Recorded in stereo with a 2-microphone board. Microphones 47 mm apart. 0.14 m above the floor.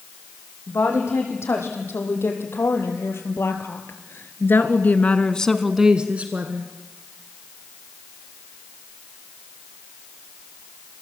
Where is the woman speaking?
65° left (ahead or behind), 7.5 m; by 6.7 s 45° right (ahead or behind), 2 m.